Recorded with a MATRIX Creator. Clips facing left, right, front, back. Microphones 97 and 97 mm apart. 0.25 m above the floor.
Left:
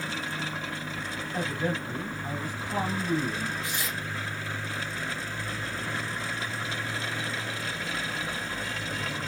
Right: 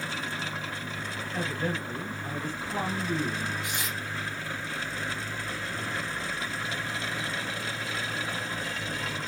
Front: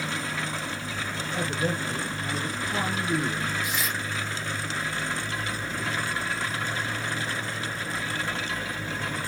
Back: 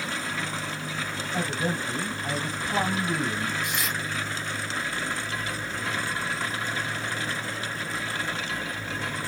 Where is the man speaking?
150° left, 1.2 m.